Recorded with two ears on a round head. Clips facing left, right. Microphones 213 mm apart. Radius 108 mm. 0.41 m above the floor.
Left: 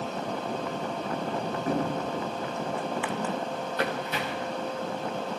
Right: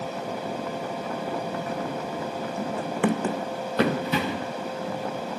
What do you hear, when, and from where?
1.7 s running footsteps: 30° left (ahead or behind), 1.2 m; by 4.5 s 65° right (ahead or behind), 3 m